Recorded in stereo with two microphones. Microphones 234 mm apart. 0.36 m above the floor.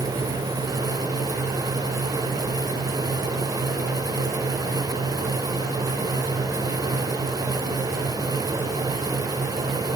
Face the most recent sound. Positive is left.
No sound to turn to.